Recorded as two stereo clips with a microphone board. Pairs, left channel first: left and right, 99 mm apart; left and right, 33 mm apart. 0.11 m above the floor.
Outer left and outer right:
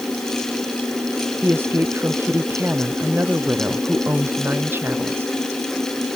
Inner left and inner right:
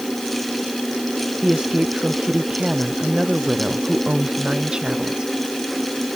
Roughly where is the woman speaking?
Right.